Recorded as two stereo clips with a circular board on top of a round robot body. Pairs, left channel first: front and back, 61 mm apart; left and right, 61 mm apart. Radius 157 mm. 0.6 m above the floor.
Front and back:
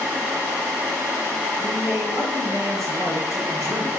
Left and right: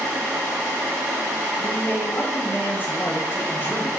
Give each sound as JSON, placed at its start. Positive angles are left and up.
{"t": 1.6, "sound": "a man speaking", "azimuth_deg": 145, "distance_m": 3.5}